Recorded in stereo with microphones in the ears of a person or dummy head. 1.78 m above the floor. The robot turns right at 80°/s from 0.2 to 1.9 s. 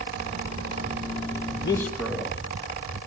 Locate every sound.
1.6 s a man speaking: 35° left (ahead or behind), 1.9 m; by 3.0 s 10° left (ahead or behind), 1.9 m